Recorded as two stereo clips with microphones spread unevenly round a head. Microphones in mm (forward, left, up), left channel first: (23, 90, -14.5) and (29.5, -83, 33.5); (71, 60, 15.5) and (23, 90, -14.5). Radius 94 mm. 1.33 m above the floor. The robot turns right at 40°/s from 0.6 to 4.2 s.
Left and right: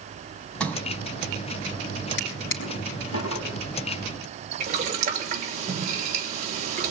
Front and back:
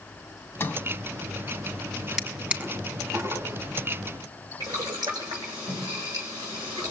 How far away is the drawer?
About 5 m.